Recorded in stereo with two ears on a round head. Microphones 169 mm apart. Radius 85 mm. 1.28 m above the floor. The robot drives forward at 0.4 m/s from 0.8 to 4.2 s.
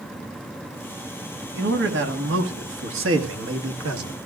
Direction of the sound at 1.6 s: 60° right (ahead or behind).